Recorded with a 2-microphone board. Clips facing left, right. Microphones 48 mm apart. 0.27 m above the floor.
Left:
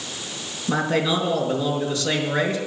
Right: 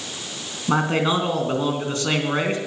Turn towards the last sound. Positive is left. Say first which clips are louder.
# right 1 dB
turn(degrees=-40)  # may be behind; listen again after turning